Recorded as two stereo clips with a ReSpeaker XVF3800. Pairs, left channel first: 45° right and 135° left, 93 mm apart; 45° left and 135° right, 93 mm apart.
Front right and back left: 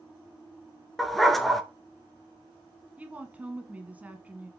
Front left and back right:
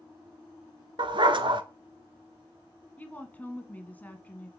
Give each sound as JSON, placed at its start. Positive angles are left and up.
{"t": 1.0, "sound": "a dog barking", "azimuth_deg": -135, "distance_m": 0.7}
{"t": 3.0, "sound": "a woman speaking", "azimuth_deg": 90, "distance_m": 1.1}